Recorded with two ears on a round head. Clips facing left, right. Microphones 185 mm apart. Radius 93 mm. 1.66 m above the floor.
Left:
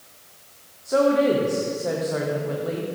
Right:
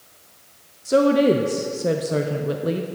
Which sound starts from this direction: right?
A woman speaking, at 0.8 s.